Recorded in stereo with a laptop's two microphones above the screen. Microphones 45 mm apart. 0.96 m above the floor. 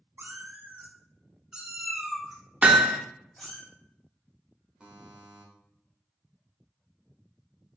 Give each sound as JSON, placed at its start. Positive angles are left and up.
{"t": 0.2, "sound": "a cat meowing", "side_deg": -50, "distance_m": 0.7}
{"t": 2.6, "sound": "hammering", "side_deg": -30, "distance_m": 0.7}
{"t": 4.8, "sound": "a buzzer", "side_deg": -25, "distance_m": 1.3}